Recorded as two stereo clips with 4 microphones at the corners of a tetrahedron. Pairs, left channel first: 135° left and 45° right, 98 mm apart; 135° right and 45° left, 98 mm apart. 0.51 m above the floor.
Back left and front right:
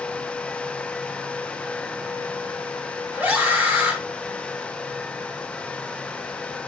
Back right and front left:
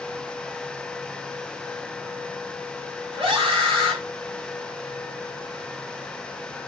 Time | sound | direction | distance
3.1 | a scream | 25° left | 3.5 m